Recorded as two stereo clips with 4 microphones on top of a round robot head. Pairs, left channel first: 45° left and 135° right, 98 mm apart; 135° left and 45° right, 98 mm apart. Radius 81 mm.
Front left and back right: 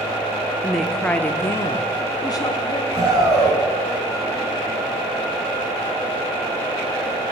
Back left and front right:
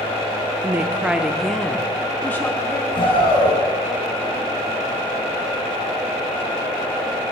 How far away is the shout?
About 5 m.